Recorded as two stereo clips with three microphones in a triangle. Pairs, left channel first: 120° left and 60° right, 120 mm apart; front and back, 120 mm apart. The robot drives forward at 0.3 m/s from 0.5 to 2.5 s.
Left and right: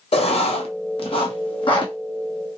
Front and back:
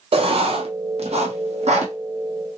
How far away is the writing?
About 0.6 m.